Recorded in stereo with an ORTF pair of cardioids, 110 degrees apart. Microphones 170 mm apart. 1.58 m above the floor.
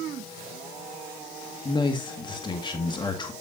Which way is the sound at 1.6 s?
25° left.